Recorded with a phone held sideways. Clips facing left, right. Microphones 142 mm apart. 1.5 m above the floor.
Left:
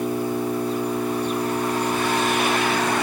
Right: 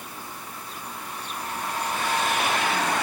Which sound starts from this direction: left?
An engine running, at 0.0 s.